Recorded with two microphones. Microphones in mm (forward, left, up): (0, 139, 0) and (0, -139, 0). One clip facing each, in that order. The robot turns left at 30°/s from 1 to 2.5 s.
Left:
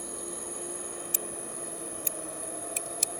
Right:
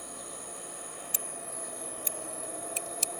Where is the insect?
55° left; by 3.2 s 10° left.